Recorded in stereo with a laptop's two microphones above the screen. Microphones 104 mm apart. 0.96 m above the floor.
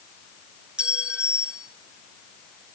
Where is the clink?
10° right (ahead or behind), 1.0 m.